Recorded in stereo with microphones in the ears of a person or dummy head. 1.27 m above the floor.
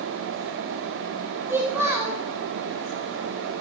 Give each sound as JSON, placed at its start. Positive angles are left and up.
{"t": 1.5, "sound": "a child speaking", "side_deg": -15, "distance_m": 3.5}